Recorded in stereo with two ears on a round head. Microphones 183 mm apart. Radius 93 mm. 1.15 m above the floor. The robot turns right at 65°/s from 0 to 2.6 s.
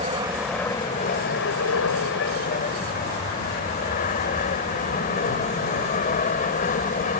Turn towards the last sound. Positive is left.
turn(degrees=135)